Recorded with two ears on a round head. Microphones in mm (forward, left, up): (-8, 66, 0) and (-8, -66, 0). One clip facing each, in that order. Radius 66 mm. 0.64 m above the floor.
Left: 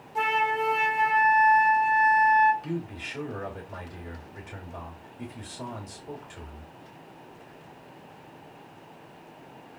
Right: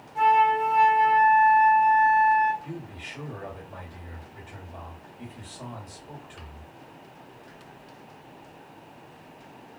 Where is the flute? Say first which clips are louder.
Right 6 dB; 65° left (ahead or behind), 0.7 m.